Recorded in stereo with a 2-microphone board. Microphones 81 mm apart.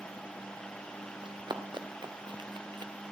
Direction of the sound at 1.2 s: 70° right (ahead or behind).